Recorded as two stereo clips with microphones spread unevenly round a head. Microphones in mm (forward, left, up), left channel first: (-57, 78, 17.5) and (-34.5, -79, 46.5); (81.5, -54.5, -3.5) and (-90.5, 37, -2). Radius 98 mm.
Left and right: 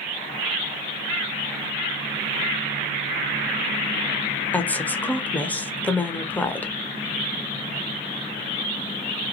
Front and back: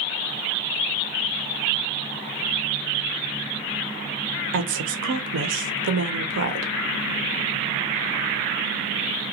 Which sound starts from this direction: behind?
A woman speaking, at 4.5 s.